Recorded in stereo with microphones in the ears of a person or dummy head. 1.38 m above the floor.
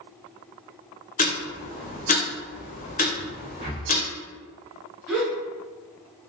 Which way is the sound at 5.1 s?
10° right (ahead or behind).